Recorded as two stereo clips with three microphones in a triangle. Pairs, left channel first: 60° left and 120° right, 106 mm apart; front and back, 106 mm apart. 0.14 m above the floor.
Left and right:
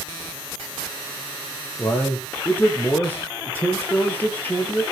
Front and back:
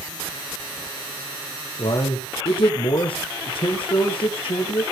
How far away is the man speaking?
About 3.5 m.